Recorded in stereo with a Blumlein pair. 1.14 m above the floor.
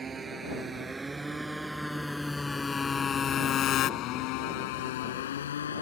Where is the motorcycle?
20° right; by 5.8 s 70° left.